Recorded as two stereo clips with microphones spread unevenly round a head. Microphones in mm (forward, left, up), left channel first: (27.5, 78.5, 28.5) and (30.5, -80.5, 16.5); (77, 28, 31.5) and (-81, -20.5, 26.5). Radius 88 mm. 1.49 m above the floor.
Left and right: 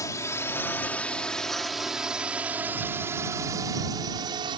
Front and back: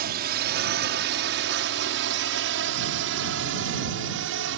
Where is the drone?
165° left; by 4.6 s 155° right.